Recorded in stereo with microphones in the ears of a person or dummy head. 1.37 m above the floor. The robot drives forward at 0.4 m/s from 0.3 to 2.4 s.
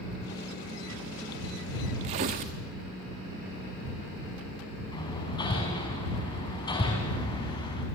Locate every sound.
2.0 s tearing paper: 25° right (ahead or behind), 0.9 m
4.9 s hammering: 20° left (ahead or behind), 4 m